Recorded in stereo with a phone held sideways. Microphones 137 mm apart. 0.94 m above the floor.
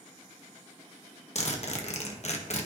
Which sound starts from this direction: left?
A zipper, at 1.4 s.